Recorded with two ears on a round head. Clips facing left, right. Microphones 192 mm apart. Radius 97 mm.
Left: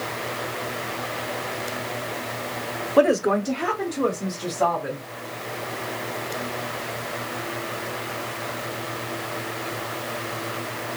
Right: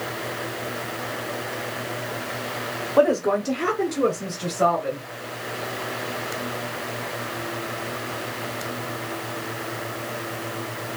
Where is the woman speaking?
30° left (ahead or behind), 0.9 m; by 5.1 s 45° right (ahead or behind), 3 m.